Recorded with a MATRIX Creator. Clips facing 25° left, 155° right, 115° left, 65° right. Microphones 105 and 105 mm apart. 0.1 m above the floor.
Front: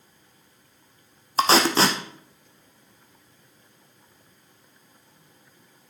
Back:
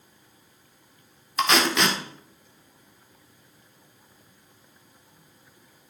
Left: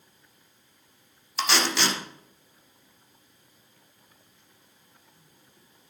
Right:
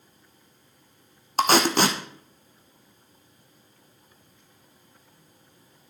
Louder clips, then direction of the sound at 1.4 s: Front 3 dB, right 6 dB; 30° right.